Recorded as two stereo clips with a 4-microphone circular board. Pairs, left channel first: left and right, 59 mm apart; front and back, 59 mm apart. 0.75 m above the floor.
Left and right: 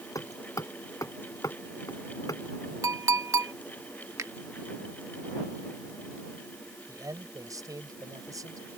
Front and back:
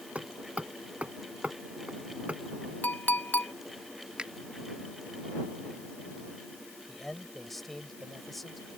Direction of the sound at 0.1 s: 115° left.